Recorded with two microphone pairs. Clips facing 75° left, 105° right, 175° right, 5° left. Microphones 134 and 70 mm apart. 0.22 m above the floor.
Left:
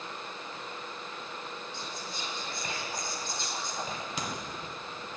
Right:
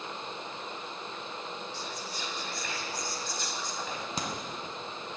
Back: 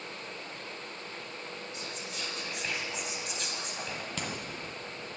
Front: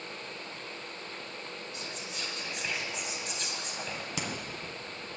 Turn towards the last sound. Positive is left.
turn(degrees=-70)